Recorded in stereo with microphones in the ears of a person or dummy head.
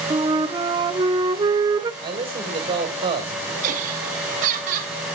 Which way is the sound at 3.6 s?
45° right (ahead or behind).